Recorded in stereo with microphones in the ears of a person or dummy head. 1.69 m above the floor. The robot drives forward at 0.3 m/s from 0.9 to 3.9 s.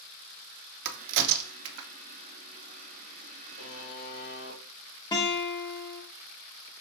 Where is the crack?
60° right (ahead or behind), 0.6 m; by 1.9 s 90° right, 0.5 m.